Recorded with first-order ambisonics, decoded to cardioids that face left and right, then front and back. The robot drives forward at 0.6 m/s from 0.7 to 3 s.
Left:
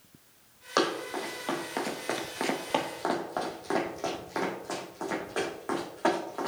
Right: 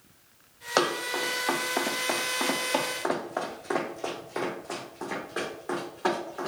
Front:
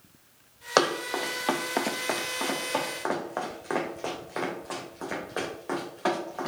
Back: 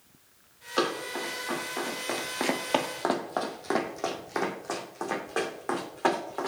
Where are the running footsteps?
10° right, 1.6 m; by 6.5 s 160° left, 2.5 m.